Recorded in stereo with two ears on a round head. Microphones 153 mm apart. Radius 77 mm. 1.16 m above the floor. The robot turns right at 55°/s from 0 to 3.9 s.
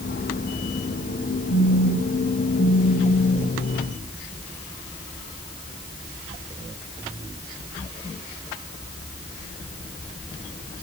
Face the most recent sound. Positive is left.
turn(degrees=-130)